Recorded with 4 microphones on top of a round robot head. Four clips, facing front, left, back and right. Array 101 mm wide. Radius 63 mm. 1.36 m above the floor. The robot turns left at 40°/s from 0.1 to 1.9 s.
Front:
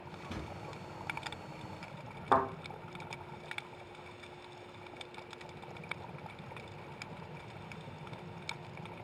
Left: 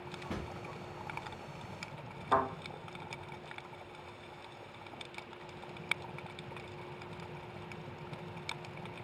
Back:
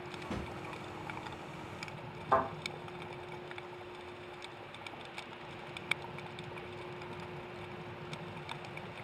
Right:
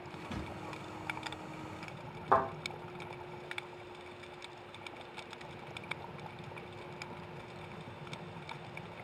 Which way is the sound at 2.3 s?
30° right.